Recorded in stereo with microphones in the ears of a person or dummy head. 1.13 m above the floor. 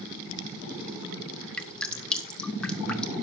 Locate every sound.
1.6 s dripping: 5° left (ahead or behind), 1.3 m